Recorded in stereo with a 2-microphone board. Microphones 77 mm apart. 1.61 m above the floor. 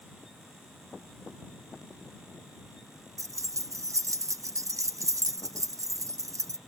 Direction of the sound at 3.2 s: 45° right (ahead or behind).